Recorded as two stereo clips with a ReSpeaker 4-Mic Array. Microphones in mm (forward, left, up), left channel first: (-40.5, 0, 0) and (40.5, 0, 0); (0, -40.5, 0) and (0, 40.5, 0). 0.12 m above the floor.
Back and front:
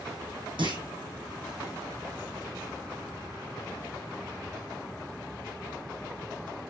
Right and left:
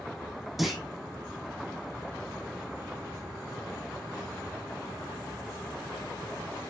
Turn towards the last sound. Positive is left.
turn(degrees=0)